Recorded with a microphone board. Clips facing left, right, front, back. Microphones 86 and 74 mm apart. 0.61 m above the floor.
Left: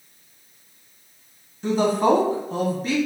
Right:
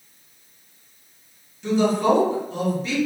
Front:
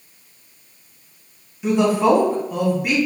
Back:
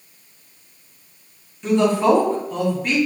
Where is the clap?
I don't hear a clap.